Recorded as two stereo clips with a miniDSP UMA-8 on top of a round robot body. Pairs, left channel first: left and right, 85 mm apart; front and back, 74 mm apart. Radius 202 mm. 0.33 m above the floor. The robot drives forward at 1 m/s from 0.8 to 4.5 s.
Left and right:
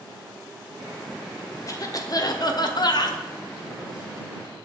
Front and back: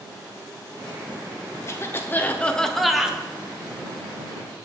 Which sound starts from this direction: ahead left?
A cough, at 1.7 s.